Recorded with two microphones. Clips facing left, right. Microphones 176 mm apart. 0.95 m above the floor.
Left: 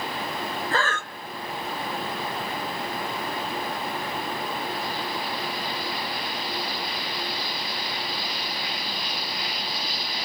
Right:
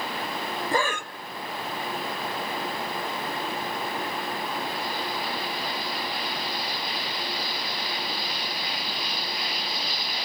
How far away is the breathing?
About 0.7 m.